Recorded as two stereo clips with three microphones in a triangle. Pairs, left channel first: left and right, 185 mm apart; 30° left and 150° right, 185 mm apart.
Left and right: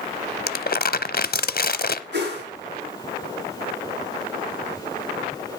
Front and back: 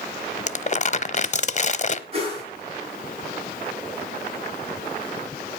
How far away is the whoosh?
About 7.5 m.